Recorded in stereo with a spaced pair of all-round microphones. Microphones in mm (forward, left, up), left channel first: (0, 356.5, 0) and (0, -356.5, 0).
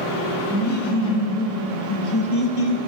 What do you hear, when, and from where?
0.5 s laughter: 10° left (ahead or behind), 3.5 m; by 2.8 s 55° left (ahead or behind), 1.6 m